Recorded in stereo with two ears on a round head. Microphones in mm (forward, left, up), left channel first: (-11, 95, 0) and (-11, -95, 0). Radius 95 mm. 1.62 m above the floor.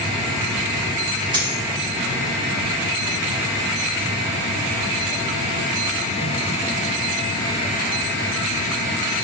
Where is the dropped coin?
20° right (ahead or behind), 1.3 m.